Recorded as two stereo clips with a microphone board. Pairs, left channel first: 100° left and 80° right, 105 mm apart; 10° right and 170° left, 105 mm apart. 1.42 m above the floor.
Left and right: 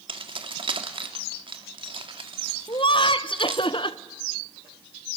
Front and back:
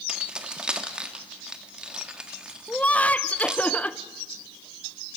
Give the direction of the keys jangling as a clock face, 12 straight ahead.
4 o'clock.